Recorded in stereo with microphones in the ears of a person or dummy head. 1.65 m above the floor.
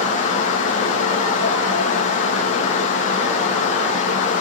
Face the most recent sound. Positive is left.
turn(degrees=45)  # may be behind; listen again after turning